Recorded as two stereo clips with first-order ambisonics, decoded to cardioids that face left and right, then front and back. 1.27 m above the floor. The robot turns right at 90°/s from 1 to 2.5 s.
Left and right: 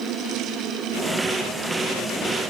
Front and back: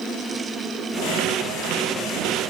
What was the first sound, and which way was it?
Only background noise.